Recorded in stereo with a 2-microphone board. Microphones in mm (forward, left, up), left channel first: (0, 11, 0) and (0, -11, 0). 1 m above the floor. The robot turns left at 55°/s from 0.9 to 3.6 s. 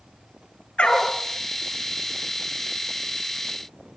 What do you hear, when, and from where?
0.8 s a dog barking: 80° left, 4.5 m; by 1.1 s 70° left (ahead or behind), 4.5 m